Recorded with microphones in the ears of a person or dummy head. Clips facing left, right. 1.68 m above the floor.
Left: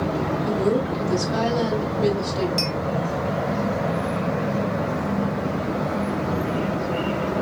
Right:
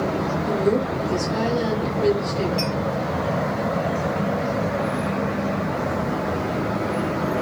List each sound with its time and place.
0.5 s a woman speaking: 25° left (ahead or behind), 3.5 m
2.6 s a clink: 60° left (ahead or behind), 2 m